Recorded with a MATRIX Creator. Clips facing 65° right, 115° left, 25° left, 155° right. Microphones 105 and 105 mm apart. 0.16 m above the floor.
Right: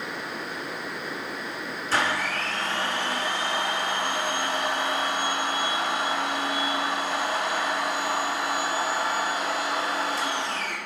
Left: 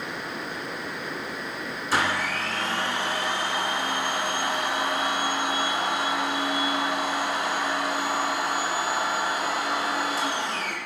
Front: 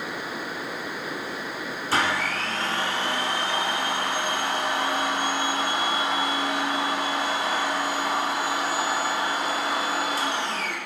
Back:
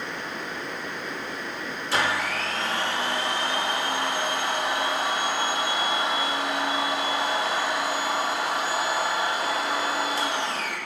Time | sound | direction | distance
1.9 | a blender | 40° left | 1.1 m